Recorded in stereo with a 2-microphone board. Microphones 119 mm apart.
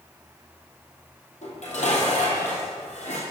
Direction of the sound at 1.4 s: 75° left (ahead or behind).